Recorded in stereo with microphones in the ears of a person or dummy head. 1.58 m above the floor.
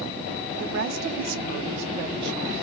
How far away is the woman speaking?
About 0.6 m.